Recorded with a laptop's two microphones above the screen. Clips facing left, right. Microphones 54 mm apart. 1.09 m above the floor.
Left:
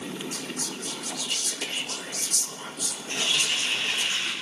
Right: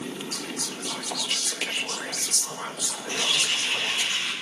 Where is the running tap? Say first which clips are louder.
Right 1 dB; 85° right, 5.5 m.